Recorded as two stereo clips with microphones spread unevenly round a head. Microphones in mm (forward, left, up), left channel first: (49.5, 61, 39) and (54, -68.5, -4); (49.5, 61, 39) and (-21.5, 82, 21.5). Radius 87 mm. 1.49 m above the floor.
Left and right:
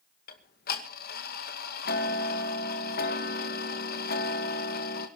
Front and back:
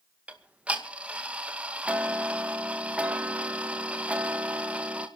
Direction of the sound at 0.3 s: 90° left.